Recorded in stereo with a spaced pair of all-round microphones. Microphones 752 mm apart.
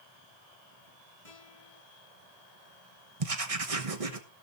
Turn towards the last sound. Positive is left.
turn(degrees=-50)  # may be behind; listen again after turning